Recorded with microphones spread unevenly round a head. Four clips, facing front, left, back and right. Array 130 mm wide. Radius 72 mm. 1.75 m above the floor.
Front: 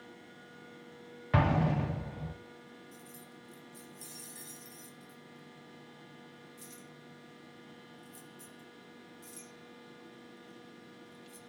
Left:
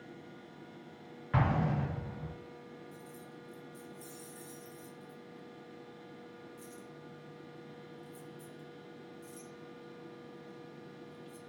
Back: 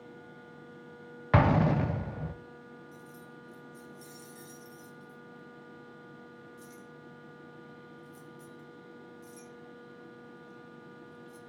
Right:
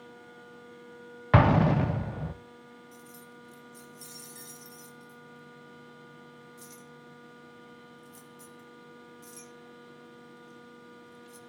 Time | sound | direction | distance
1.3 | an explosion | 110° right | 0.9 m
2.9 | keys jangling | 60° right | 3.5 m